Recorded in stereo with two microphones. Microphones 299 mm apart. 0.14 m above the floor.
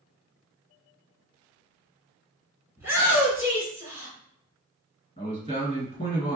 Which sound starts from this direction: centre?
A shout, at 2.8 s.